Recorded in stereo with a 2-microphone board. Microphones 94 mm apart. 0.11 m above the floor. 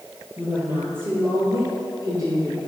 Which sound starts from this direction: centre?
A woman speaking, at 0.4 s.